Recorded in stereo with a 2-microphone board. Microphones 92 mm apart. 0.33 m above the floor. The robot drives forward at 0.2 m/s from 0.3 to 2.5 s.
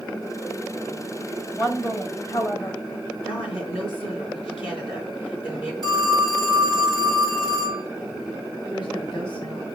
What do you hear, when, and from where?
1.6 s a woman speaking: 30° left (ahead or behind), 1.5 m; by 2.8 s 35° left (ahead or behind), 1.4 m
3.2 s a woman speaking: 75° left (ahead or behind), 4 m
5.8 s a phone ringing: 50° left (ahead or behind), 2.5 m
8.7 s a woman speaking: 65° left (ahead or behind), 2.5 m